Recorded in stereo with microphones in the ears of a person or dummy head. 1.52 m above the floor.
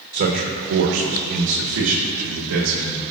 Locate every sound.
0.1 s a man speaking: 55° right (ahead or behind), 1.3 m; by 3.0 s 75° right (ahead or behind), 2 m